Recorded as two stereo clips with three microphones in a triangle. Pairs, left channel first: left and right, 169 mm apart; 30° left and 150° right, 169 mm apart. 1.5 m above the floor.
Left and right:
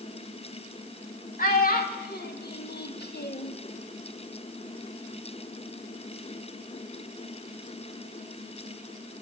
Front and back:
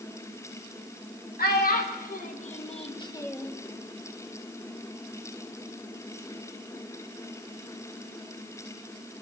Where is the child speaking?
55° left, 2 m; by 3.5 s 120° left, 0.9 m.